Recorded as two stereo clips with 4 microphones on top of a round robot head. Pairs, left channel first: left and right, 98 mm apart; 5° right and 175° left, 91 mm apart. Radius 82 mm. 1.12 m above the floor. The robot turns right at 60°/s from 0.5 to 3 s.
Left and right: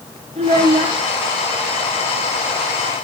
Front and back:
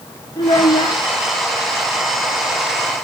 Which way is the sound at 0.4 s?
55° right.